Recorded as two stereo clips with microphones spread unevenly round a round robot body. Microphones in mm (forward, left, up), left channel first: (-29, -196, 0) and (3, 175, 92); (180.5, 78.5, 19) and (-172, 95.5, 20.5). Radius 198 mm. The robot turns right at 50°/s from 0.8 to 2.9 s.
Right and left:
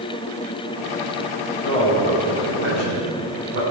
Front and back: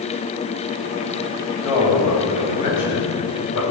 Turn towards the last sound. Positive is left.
turn(degrees=35)